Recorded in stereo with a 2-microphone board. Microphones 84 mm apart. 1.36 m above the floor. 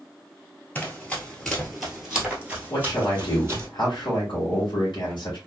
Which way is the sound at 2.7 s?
65° left (ahead or behind).